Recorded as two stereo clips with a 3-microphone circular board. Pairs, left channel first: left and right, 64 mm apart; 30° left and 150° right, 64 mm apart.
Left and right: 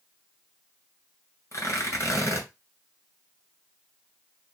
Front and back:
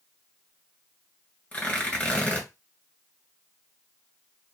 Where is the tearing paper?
95° left, 2 m.